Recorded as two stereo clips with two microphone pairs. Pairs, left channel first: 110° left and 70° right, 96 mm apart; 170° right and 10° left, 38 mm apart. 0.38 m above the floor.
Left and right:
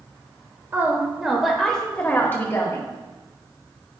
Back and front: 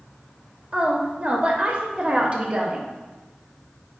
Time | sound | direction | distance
0.7 | a woman speaking | 20° right | 1.1 m